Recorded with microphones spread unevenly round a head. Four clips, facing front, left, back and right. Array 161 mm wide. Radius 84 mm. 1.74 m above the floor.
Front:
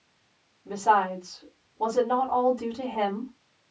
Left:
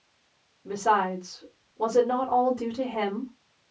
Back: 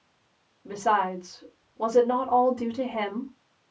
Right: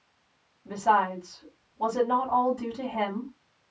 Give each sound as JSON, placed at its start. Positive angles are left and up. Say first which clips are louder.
{"t": 0.7, "sound": "a woman speaking", "louder": "even, front 2 dB", "azimuth_deg": 130, "distance_m": 2.0}